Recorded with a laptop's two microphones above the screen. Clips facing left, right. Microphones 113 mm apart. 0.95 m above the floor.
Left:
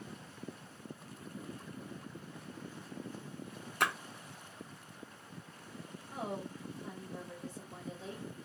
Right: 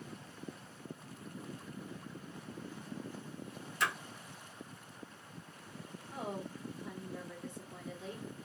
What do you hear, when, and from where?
3.8 s a splash: 60° left (ahead or behind), 0.6 m
6.1 s a woman speaking: 35° left (ahead or behind), 1.3 m